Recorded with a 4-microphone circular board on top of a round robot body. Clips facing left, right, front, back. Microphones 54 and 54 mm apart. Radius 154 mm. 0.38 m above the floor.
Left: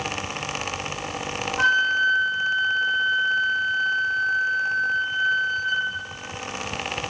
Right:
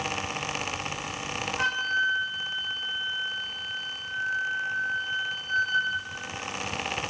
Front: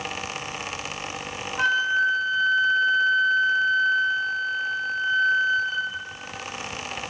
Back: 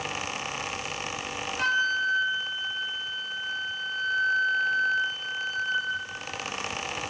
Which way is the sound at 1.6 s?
50° left.